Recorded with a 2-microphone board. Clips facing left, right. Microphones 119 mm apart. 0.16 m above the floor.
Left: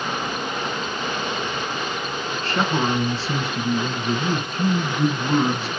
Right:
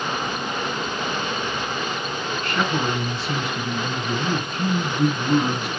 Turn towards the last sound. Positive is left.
turn(degrees=35)  # may be behind; listen again after turning